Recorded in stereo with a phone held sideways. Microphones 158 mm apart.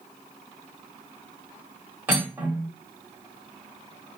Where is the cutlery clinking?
15° right (ahead or behind), 1.4 m.